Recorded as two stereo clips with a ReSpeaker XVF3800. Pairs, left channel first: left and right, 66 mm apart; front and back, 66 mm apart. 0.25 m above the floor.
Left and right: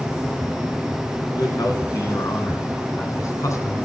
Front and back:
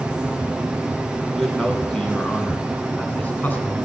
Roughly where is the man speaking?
Left.